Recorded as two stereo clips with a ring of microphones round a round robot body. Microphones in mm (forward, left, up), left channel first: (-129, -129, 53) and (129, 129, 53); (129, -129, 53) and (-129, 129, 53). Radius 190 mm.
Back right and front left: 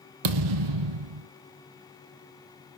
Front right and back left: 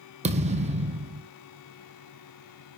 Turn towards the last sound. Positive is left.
turn(degrees=65)